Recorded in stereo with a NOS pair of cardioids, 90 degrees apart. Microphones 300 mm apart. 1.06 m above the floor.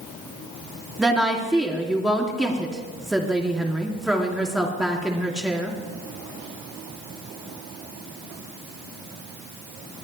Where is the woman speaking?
Straight ahead, 2.5 m.